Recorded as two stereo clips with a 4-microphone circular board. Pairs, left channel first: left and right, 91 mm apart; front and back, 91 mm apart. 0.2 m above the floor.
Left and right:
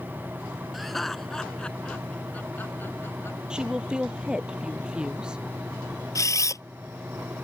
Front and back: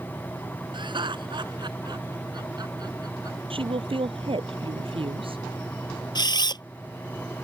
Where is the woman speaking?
170° right.